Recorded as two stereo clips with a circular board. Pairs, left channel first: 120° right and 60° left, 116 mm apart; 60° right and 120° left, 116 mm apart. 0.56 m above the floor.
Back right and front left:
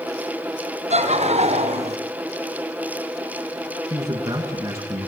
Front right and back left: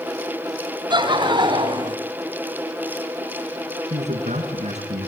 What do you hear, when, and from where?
0.9 s laughter: 70° left, 4 m; by 2.0 s 75° left, 3 m
3.9 s a man speaking: 125° left, 5.5 m